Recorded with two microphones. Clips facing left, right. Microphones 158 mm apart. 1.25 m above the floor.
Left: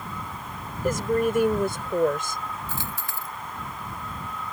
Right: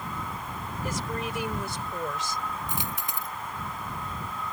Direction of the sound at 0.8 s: 50° left (ahead or behind).